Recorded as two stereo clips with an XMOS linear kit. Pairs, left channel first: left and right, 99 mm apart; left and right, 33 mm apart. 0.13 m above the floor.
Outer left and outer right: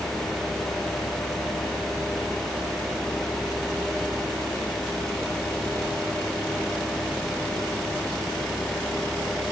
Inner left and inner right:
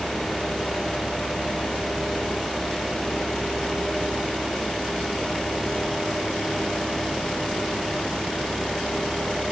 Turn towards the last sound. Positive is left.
No sound to turn to.